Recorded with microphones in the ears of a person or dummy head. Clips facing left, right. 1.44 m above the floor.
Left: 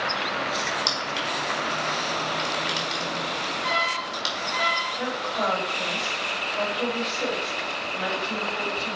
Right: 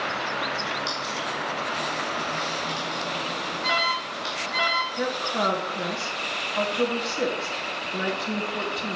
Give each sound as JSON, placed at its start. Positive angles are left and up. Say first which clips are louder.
{"t": 0.7, "sound": "crushing", "louder": "left 1 dB", "side_deg": 70, "distance_m": 2.5}
{"t": 3.6, "sound": "an alarm", "louder": "right 1 dB", "side_deg": -65, "distance_m": 2.5}
{"t": 5.0, "sound": "a woman speaking", "louder": "right 3 dB", "side_deg": -65, "distance_m": 2.0}